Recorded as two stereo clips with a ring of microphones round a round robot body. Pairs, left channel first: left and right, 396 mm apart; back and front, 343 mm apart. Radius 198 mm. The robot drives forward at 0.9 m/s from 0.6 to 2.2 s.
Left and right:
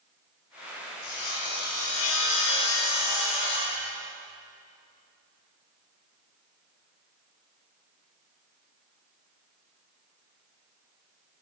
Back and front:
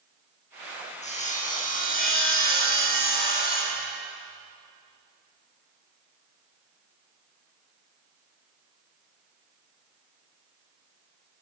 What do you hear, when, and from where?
1.0 s sawing: 110° left, 9 m; by 3.9 s 115° left, 9.5 m